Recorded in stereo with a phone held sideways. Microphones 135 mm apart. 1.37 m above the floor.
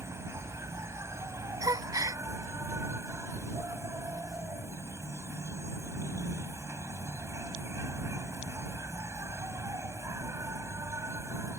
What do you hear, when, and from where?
0.0 s an insect: 20° right (ahead or behind)
1.6 s a gasp: 25° right (ahead or behind)